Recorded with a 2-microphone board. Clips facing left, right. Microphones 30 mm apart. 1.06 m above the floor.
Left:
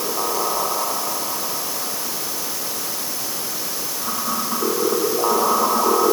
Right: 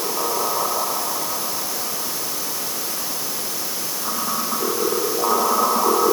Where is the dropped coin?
I don't hear a dropped coin.